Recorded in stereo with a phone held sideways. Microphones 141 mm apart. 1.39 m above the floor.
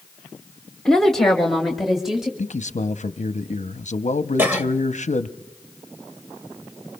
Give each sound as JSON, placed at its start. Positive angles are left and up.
{"t": 0.8, "sound": "a woman speaking", "side_deg": 5, "distance_m": 1.0}
{"t": 2.4, "sound": "a man speaking", "side_deg": 60, "distance_m": 0.6}
{"t": 4.4, "sound": "a cough", "side_deg": -15, "distance_m": 1.7}